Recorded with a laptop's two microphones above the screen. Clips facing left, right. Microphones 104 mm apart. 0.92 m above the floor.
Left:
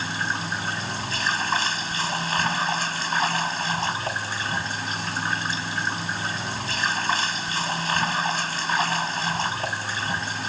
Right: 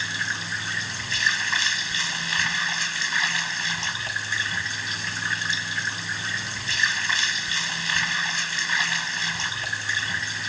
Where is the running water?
40° left (ahead or behind).